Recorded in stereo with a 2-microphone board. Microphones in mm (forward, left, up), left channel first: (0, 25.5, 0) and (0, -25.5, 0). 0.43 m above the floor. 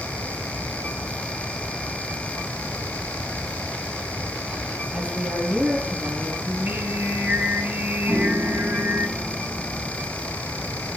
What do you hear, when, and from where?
4.9 s a woman speaking: 30° right (ahead or behind), 10 m; by 6.3 s 35° right (ahead or behind), 10.5 m
6.5 s singing: 40° right (ahead or behind), 2.5 m
8.1 s a piano: 75° right (ahead or behind), 1.5 m